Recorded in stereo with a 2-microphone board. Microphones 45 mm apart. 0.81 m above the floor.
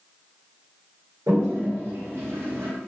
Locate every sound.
1.3 s a toilet flushing: 85° right, 1.7 m